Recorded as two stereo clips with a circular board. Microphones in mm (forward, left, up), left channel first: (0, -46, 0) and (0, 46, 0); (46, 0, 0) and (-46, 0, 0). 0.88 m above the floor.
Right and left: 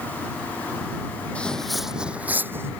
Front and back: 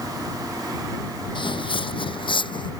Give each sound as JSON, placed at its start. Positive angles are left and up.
{"t": 1.4, "sound": "footsteps", "azimuth_deg": -15}